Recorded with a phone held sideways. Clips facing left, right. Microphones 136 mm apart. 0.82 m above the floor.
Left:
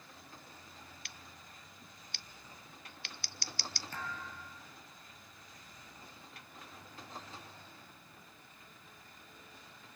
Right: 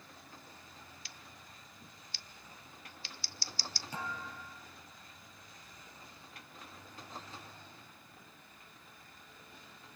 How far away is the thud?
About 4.5 m.